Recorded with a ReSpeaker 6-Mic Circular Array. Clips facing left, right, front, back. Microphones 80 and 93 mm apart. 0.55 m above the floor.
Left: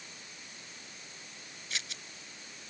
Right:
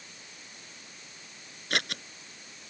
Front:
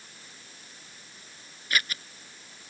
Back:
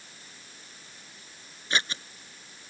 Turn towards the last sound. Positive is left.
turn(degrees=-120)